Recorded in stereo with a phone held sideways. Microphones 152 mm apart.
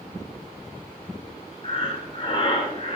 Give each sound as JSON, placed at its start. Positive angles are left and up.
{"t": 1.6, "sound": "breathing", "side_deg": 35, "distance_m": 0.6}